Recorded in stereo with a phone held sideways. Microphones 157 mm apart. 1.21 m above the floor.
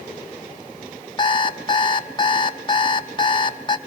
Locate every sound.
1.2 s an alarm clock: 30° left (ahead or behind), 0.9 m